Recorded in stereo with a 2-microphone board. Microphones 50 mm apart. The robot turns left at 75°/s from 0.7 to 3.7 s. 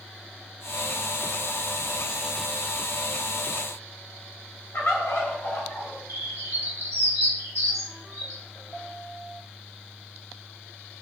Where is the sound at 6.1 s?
70° right (ahead or behind), 1.3 m.